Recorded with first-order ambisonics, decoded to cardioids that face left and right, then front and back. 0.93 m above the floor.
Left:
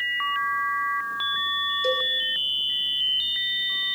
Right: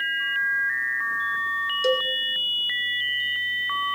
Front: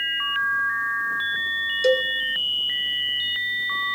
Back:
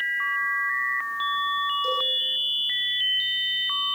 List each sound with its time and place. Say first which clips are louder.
1.8 s a cowbell: right 3 dB, front 5 dB; 40° right, 1.8 m